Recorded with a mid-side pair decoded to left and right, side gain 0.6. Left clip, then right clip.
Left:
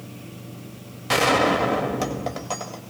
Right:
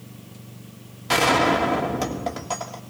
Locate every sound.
1.1 s a gunshot: 5° left, 2.5 m